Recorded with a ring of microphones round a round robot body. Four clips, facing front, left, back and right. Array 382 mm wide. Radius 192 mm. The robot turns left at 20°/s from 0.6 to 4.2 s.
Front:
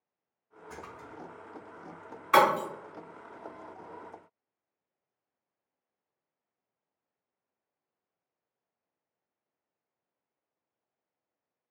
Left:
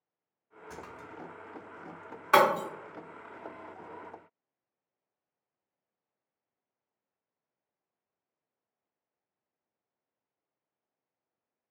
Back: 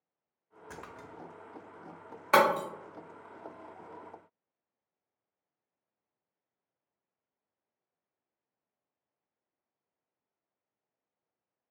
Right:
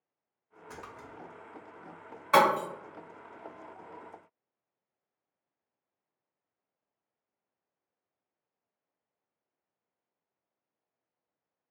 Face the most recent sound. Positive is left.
turn(degrees=110)